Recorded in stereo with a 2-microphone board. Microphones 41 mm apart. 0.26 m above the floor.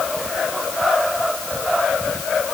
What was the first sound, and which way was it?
Only background noise.